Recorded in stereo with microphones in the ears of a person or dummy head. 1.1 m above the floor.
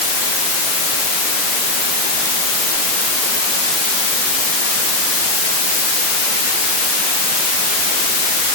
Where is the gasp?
No gasp in this recording.